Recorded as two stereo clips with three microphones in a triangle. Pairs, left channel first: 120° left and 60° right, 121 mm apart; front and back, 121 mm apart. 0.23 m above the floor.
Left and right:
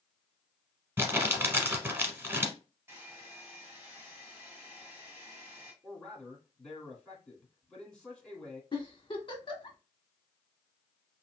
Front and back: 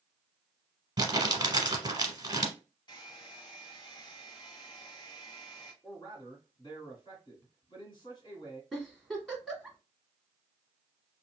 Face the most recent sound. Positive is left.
turn(degrees=95)